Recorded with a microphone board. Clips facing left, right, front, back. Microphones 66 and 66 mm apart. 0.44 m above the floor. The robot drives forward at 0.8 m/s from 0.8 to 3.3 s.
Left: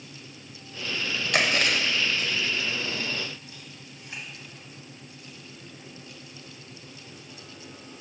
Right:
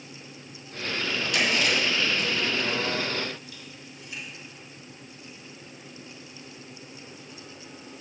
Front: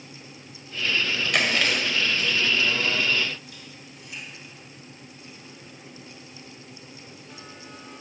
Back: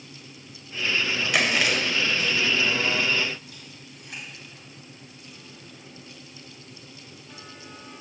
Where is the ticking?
No ticking in this recording.